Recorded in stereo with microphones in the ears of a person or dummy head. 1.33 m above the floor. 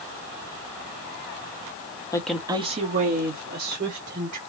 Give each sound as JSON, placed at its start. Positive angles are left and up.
{"t": 2.1, "sound": "a woman speaking", "side_deg": 20, "distance_m": 0.8}